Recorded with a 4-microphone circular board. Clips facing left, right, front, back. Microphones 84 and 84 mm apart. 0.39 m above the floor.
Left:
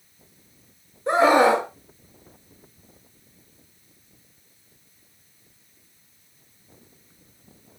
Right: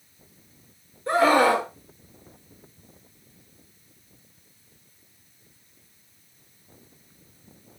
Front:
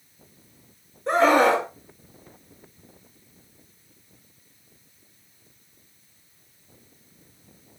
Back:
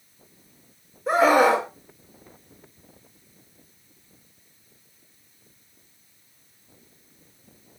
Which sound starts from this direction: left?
A scream, at 1.1 s.